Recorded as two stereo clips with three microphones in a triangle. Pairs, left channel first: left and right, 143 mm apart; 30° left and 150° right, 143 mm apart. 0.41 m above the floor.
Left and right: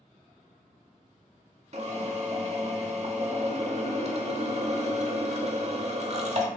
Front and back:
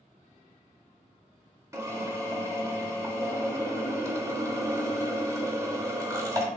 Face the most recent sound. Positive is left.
turn(degrees=-85)